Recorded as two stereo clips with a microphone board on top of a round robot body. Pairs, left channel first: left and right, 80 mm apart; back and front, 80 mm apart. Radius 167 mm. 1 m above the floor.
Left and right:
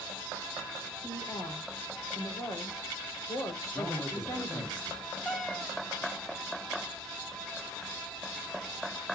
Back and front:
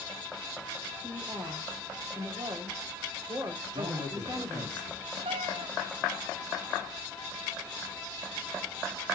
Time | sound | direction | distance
1.0 | a woman speaking | 40° left | 3.5 m
3.7 | a man speaking | 10° left | 5.5 m
5.2 | a cat meowing | straight ahead | 1.2 m